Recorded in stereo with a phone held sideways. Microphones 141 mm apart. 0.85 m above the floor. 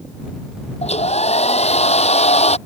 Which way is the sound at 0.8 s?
50° left (ahead or behind).